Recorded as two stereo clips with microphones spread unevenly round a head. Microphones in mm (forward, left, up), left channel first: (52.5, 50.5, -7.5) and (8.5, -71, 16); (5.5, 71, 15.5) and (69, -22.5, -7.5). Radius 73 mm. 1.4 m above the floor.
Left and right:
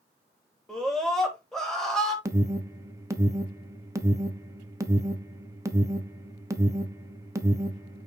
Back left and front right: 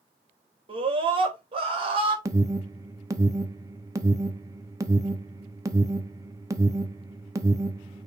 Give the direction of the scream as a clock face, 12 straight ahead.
1 o'clock.